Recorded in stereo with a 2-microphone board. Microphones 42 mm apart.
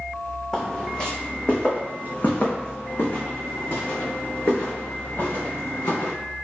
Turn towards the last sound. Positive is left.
turn(degrees=75)  # may be behind; listen again after turning